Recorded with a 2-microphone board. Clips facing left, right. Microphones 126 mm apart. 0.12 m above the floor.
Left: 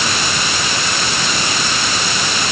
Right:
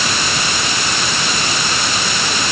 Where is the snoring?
No snoring in this recording.